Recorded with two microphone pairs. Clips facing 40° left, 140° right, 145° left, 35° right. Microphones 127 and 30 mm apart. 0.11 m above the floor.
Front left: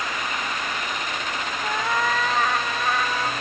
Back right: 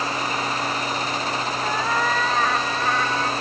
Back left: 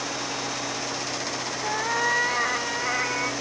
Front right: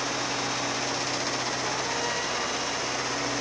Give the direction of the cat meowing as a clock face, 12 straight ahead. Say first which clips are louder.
Even, back left 4 dB; 8 o'clock.